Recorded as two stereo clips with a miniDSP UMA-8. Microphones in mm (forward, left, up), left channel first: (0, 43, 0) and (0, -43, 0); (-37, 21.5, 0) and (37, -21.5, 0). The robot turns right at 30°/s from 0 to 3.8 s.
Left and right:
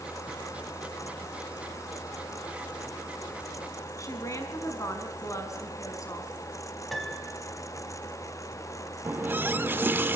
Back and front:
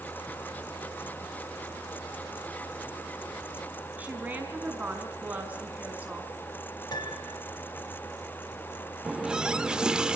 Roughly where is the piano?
Behind.